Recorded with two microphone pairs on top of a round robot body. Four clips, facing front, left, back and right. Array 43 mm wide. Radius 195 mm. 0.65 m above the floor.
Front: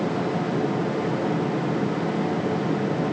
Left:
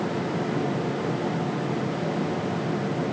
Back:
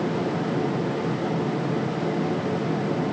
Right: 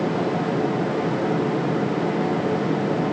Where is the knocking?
I don't hear knocking.